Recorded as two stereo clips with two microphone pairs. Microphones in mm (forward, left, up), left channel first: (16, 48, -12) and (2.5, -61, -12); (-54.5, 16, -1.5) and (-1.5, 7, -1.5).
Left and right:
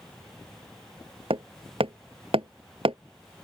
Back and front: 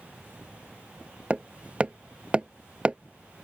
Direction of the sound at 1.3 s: 75° right.